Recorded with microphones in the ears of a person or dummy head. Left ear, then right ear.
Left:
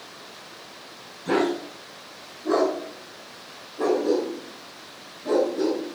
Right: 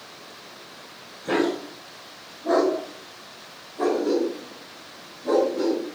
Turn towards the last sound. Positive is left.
turn(degrees=-25)  # may be behind; listen again after turning